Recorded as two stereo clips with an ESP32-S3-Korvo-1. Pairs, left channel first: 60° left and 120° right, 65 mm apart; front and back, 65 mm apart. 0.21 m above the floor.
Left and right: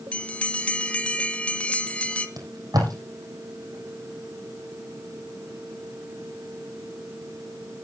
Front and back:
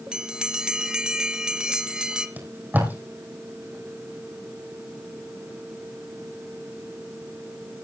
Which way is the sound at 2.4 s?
120° right.